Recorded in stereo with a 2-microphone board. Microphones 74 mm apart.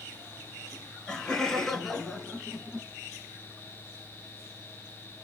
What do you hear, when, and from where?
0.7 s laughter: 15° left (ahead or behind), 2.5 m; by 2.9 s 10° right (ahead or behind), 1.7 m